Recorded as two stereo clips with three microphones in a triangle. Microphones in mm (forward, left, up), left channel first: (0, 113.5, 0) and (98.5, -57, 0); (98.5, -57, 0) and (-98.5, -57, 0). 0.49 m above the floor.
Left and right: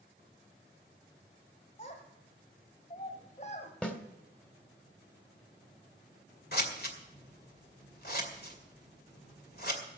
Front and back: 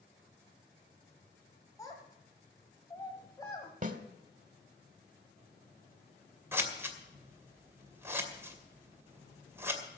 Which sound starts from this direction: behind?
A snare drum, at 3.8 s.